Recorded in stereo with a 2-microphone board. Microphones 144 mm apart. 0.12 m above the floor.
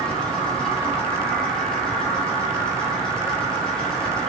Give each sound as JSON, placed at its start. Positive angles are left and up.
{"t": 0.0, "sound": "an insect", "side_deg": 5, "distance_m": 1.2}